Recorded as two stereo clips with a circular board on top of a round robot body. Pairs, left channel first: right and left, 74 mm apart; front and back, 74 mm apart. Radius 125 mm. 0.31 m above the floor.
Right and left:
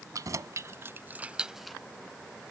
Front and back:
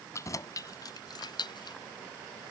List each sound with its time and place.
0.1 s keys jangling: 50° left; by 1.8 s 5° right